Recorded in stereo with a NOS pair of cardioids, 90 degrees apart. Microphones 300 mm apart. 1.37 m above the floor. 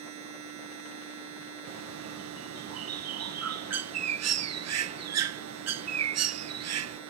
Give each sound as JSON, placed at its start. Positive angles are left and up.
{"t": 0.0, "sound": "a machine running", "azimuth_deg": -70}
{"t": 1.7, "sound": "a bird", "azimuth_deg": -55}